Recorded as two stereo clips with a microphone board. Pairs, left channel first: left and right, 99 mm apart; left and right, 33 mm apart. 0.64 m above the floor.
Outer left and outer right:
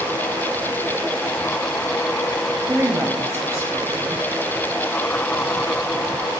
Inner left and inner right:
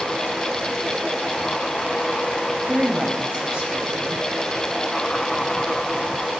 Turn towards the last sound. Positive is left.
turn(degrees=-30)  # may be behind; listen again after turning